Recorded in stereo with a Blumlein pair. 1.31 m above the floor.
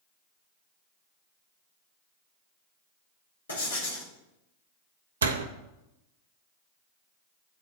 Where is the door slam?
70° right, 0.7 m.